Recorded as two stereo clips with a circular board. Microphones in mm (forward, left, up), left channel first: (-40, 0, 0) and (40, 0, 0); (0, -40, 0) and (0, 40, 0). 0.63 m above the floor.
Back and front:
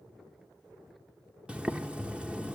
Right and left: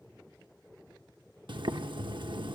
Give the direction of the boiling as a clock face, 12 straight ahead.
9 o'clock.